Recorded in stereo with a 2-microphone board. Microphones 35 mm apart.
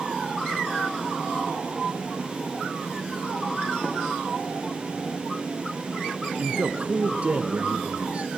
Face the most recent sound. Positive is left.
turn(degrees=-40)  # may be behind; listen again after turning